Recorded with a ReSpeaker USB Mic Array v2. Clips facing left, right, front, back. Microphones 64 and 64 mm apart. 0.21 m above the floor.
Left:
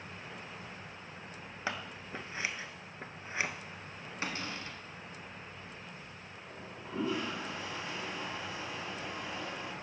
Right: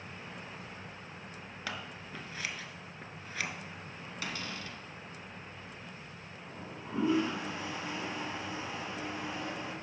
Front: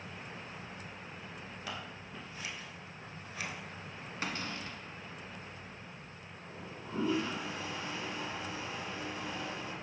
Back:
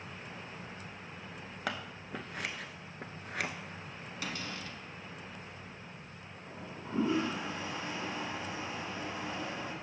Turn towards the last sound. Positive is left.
turn(degrees=-145)